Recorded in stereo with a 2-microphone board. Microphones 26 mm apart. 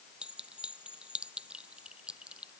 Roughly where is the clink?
Right.